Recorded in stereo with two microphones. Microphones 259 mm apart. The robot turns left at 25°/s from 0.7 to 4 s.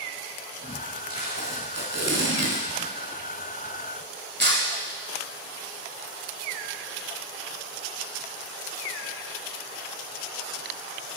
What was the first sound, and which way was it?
Tape being pulled, 60° right (ahead or behind).